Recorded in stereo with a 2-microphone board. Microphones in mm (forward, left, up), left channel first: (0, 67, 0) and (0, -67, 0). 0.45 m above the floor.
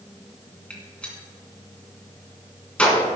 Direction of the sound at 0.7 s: 10° left (ahead or behind).